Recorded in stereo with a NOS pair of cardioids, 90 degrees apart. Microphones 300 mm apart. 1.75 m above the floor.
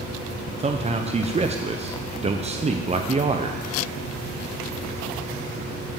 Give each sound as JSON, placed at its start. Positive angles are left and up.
{"t": 0.6, "sound": "a man speaking", "azimuth_deg": -20, "distance_m": 0.8}